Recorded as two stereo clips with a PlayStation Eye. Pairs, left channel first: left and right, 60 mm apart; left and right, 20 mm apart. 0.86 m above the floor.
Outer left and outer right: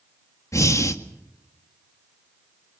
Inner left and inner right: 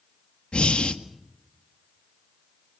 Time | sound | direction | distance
0.5 | breathing | 60° left (ahead or behind) | 1.7 m